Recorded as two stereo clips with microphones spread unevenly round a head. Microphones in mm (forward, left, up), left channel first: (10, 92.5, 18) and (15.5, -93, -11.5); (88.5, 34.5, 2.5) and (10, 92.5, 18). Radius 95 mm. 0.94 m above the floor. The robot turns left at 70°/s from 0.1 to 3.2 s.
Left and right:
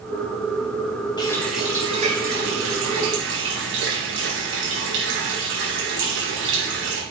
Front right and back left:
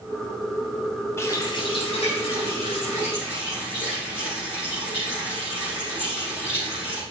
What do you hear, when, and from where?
1.2 s a running tap: 25° left, 4 m; by 7.0 s 115° right, 4 m